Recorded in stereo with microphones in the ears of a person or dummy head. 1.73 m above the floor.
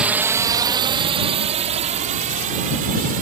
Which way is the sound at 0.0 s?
5° right (ahead or behind).